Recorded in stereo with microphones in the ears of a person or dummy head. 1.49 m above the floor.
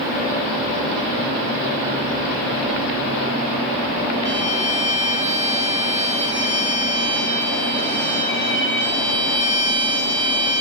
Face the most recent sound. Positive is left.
turn(degrees=-35)  # may be behind; listen again after turning